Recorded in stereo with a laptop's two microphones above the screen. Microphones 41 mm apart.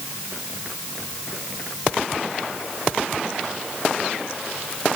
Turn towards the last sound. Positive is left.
No sound to turn to.